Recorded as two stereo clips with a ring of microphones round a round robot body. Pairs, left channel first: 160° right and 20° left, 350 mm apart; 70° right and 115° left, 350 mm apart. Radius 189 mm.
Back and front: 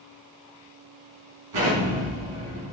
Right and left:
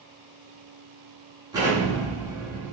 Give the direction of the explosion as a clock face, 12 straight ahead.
11 o'clock.